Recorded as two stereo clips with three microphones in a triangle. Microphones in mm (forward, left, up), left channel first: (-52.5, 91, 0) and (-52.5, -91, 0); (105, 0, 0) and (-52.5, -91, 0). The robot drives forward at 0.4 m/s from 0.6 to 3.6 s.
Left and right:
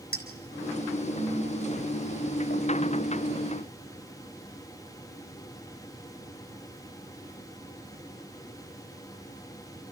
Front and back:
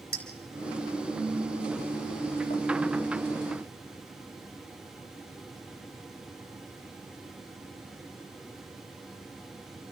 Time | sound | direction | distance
0.1 | a clink | 60° left | 4.5 m